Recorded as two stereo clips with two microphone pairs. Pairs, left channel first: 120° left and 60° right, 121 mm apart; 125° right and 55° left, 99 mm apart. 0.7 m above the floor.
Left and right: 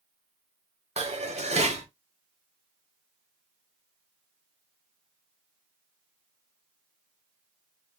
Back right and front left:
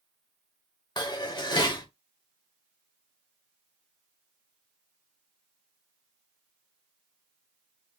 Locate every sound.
1.0 s dishes clattering: 85° right, 1.0 m